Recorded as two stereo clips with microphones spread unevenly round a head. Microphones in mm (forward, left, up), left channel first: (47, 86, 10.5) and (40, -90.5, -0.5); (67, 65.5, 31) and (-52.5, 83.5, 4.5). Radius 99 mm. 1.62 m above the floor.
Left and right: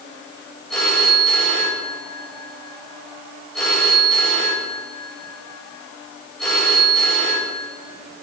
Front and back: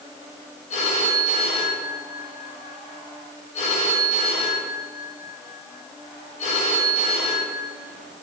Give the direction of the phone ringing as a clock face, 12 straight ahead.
12 o'clock.